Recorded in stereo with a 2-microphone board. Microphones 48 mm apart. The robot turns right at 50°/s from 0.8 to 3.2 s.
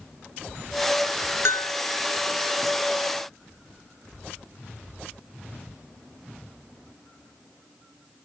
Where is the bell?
75° left (ahead or behind), 0.5 m; by 1.7 s 65° left (ahead or behind), 0.5 m.